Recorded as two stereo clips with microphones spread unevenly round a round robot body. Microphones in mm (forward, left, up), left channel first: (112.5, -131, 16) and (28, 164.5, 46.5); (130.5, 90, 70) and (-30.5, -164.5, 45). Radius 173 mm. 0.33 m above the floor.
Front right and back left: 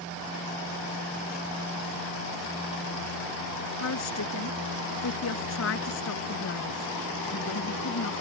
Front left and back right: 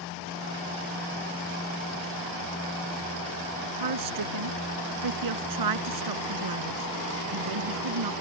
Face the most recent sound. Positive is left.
turn(degrees=-125)